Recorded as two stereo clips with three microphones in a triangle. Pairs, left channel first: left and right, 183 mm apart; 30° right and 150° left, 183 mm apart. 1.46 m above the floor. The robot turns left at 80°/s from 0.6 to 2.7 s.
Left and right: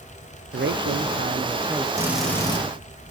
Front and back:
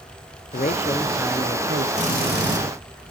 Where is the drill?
160° right, 3 m; by 2.6 s 145° left, 3 m.